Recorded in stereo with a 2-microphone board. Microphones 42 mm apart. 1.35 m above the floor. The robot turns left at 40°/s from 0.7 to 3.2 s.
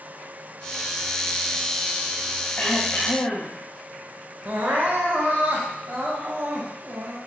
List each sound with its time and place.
2.6 s throat clearing: 25° left (ahead or behind), 0.5 m; by 3.6 s 40° left (ahead or behind), 0.5 m
4.5 s crying: 40° right (ahead or behind), 0.6 m